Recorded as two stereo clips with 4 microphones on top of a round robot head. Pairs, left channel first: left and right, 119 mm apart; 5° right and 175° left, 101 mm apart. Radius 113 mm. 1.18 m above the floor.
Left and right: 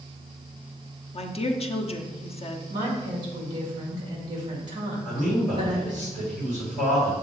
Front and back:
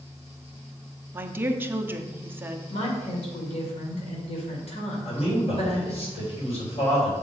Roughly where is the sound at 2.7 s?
Ahead right.